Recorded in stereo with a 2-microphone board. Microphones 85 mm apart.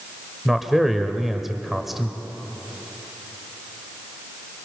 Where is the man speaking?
Centre (ahead or behind), 1.0 m.